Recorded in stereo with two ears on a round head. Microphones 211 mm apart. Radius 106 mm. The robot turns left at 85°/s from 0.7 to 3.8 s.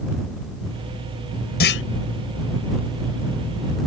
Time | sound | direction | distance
1.6 | a clunk | 45° left (ahead or behind) | ?